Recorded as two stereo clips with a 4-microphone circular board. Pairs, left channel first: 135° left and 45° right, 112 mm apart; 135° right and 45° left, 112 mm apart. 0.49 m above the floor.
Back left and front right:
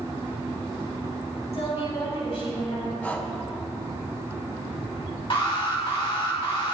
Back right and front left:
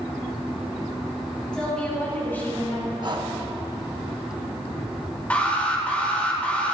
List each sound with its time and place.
1.5 s a woman speaking: 145° left, 3.5 m; by 2.9 s 165° left, 2.5 m
3.0 s breathing: 65° left, 0.9 m
5.3 s an alarm: 150° left, 1.8 m